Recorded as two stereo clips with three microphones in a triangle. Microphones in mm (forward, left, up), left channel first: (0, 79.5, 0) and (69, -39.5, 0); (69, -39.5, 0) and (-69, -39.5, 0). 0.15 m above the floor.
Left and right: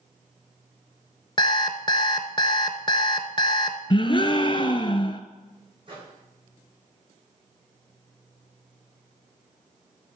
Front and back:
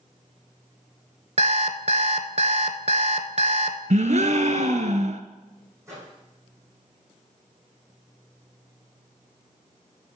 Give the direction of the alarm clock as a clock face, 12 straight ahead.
6 o'clock.